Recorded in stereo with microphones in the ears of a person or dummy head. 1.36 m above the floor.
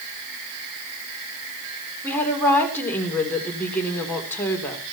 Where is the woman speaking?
20° left (ahead or behind), 3.5 m.